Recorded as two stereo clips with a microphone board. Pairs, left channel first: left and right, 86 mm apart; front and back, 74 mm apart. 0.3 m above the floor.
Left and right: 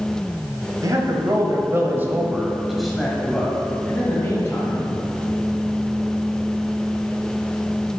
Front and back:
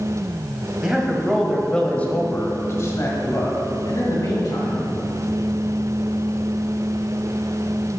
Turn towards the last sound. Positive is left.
turn(degrees=30)